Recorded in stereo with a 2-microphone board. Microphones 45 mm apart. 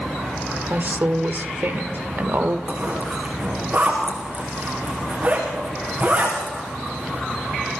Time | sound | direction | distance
0.7 | a woman speaking | 50° right (ahead or behind) | 1.8 m
2.7 | a zipper | 30° right (ahead or behind) | 9.5 m